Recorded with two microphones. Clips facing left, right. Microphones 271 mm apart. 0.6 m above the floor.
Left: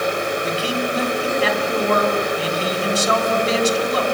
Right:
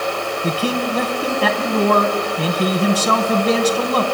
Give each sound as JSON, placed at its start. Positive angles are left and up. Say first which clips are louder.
{"t": 0.4, "sound": "a man speaking", "louder": "right 2 dB", "side_deg": -70, "distance_m": 4.0}